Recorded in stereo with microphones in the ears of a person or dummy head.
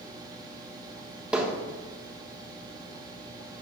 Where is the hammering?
10° right (ahead or behind), 1.2 m.